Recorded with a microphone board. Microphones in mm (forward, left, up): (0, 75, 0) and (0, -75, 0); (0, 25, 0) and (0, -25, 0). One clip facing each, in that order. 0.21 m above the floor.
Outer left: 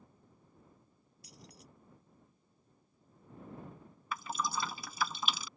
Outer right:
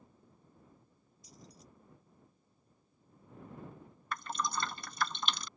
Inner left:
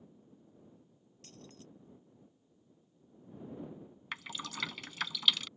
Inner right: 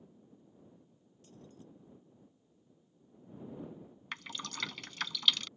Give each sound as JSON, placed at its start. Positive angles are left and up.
{"t": 1.2, "sound": "keys jangling", "side_deg": 75}
{"t": 4.1, "sound": "dripping", "side_deg": 5}